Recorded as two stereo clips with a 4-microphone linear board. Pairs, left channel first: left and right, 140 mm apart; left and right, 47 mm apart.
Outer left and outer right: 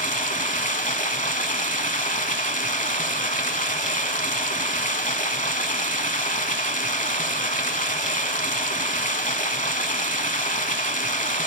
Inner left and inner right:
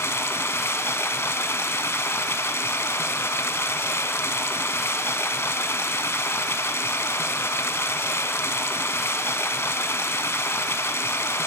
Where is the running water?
75° left (ahead or behind), 0.9 m.